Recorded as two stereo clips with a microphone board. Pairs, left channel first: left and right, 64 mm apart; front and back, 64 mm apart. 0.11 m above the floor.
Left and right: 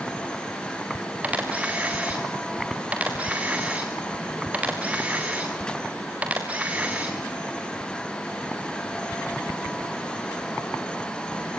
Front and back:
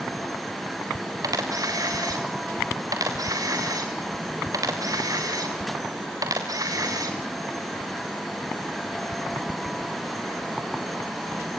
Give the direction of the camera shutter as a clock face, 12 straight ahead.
5 o'clock.